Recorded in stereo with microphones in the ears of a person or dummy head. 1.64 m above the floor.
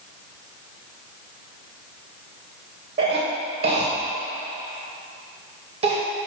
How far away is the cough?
About 1.6 m.